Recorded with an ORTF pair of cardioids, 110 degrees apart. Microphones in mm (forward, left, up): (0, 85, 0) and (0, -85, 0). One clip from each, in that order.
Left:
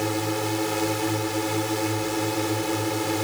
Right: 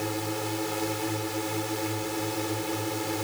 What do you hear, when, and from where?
0.0 s a drone: 30° left